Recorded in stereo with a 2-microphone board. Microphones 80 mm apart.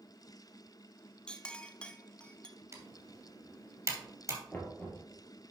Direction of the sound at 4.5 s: 20° left (ahead or behind).